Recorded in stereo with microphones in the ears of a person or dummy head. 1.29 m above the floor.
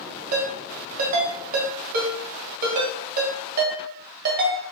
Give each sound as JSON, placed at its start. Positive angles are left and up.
{"t": 0.3, "sound": "a ringtone", "side_deg": -45, "distance_m": 0.9}